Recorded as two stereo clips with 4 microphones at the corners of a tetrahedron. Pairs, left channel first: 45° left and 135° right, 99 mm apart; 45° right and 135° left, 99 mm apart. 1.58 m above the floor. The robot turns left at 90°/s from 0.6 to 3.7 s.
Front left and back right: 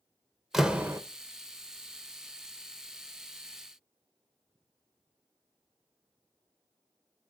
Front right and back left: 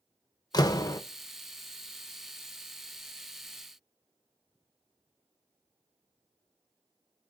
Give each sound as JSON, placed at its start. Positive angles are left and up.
{"t": 0.5, "sound": "a door slam", "azimuth_deg": -50, "distance_m": 0.6}